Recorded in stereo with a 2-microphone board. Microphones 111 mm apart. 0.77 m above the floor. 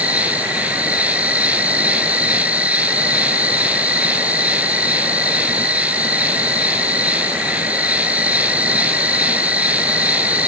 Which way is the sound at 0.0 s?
15° right (ahead or behind).